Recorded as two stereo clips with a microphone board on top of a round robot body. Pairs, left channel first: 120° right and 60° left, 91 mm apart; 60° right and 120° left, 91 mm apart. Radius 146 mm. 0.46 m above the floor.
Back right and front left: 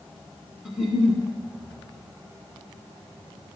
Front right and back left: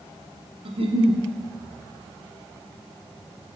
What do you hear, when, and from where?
0.7 s a giggle: 145° left, 1.0 m